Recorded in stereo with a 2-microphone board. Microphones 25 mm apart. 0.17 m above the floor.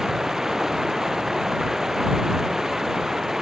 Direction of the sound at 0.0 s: 15° right (ahead or behind).